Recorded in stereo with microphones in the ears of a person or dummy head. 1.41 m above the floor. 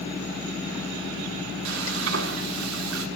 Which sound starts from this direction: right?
Frying, at 1.6 s.